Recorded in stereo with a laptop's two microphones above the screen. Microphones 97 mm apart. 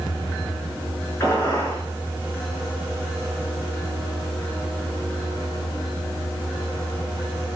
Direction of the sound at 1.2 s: 25° left (ahead or behind).